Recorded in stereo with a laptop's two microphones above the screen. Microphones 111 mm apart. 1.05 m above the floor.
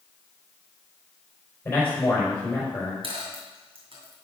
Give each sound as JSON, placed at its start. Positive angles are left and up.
{"t": 1.6, "sound": "a man speaking", "side_deg": 20, "distance_m": 4.0}
{"t": 3.0, "sound": "a dropped coin", "side_deg": -65, "distance_m": 2.5}